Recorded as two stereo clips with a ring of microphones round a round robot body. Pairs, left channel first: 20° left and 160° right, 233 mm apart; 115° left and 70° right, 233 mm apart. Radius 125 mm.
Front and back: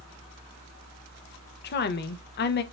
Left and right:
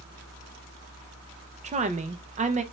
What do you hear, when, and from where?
1.6 s a woman speaking: 15° right, 0.6 m